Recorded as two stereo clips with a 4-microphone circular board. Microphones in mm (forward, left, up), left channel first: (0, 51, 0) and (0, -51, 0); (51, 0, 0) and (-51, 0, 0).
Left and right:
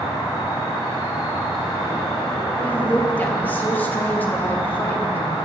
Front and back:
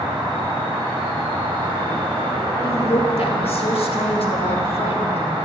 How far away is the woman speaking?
About 1.7 m.